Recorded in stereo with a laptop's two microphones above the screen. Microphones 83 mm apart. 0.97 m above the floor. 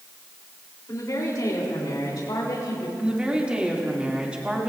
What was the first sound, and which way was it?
A woman speaking, 45° left (ahead or behind).